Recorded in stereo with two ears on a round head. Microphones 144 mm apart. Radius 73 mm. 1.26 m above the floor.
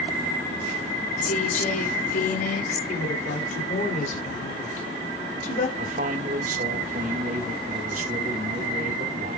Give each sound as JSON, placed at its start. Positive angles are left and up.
{"t": 1.2, "sound": "a woman speaking", "side_deg": 55, "distance_m": 3.0}
{"t": 2.9, "sound": "a woman speaking", "side_deg": 50, "distance_m": 3.5}
{"t": 5.8, "sound": "a man speaking", "side_deg": -55, "distance_m": 1.8}